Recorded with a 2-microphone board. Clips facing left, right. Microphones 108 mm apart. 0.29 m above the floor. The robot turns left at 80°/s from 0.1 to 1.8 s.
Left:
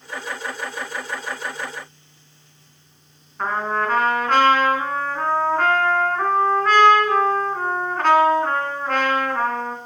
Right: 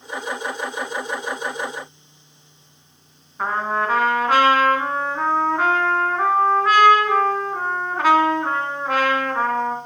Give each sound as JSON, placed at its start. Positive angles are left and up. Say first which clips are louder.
{"t": 3.4, "sound": "a trumpet", "louder": "even", "side_deg": -5, "distance_m": 2.0}